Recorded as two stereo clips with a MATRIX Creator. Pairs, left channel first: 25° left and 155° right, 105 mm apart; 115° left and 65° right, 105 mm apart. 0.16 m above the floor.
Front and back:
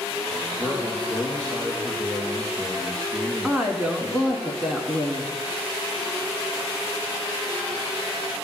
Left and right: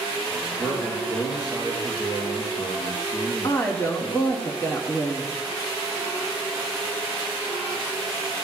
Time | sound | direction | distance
0.6 | a man speaking | 150° left | 3 m
3.4 | a woman speaking | 125° left | 1.2 m